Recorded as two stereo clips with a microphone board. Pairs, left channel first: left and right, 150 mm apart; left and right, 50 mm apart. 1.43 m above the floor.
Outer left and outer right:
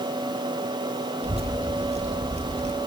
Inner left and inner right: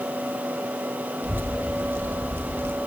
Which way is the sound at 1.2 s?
40° right (ahead or behind).